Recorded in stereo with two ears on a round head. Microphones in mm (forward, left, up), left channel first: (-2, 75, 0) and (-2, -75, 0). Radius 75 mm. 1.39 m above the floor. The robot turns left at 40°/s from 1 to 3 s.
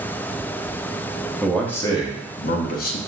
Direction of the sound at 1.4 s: Straight behind.